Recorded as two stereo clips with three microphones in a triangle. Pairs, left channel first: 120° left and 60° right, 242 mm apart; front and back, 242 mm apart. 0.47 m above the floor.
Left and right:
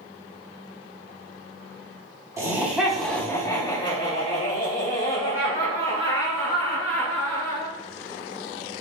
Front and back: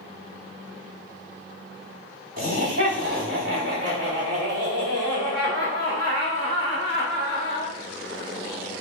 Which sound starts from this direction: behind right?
Laughter, at 2.4 s.